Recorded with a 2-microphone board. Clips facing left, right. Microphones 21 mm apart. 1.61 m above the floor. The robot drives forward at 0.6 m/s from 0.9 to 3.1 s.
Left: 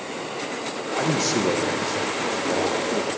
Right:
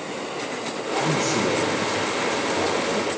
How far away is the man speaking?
About 1.0 m.